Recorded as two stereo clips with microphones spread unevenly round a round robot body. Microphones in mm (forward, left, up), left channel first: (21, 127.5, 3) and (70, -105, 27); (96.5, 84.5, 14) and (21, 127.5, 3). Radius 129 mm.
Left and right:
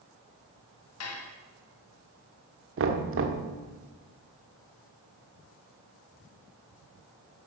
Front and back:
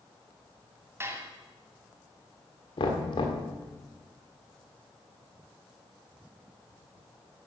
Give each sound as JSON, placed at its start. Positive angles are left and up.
{"t": 1.0, "sound": "dishes clattering", "azimuth_deg": 90, "distance_m": 2.5}
{"t": 2.8, "sound": "knocking", "azimuth_deg": -55, "distance_m": 1.5}